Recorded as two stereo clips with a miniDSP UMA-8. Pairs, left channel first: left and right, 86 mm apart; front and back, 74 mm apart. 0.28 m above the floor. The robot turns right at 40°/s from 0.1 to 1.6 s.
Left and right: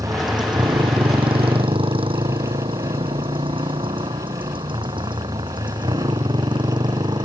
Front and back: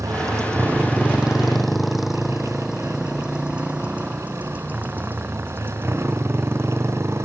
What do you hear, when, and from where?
0.0 s a motorcycle: 135° right; by 7.2 s 125° right